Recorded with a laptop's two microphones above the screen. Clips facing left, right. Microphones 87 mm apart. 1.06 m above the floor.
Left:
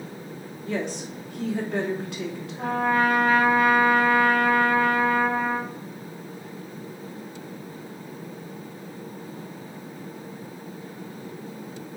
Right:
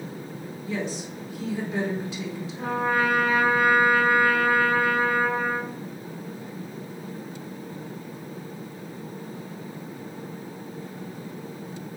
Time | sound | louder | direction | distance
0.7 | a woman speaking | left 2 dB | 60° left (ahead or behind) | 2.5 m
2.6 | a trumpet | left 2 dB | 55° left (ahead or behind) | 1.9 m